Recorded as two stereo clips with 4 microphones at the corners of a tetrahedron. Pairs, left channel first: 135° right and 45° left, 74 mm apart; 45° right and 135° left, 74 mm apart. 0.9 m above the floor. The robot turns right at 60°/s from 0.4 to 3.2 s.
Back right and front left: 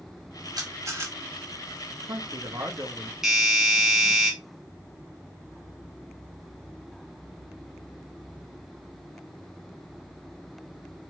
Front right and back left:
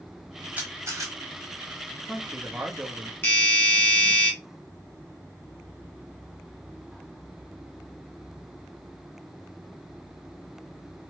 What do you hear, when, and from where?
0.6 s a camera shutter: 70° left, 1.3 m; by 1.1 s 105° left, 1.3 m
1.9 s a man speaking: 30° left, 0.7 m; by 3.1 s 105° left, 0.7 m
3.2 s a doorbell: 30° right, 1.5 m